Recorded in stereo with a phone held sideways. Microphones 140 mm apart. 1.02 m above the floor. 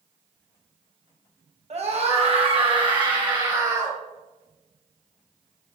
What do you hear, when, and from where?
1.7 s a scream: 50° right (ahead or behind), 1.6 m; by 4.0 s 25° right (ahead or behind), 2.5 m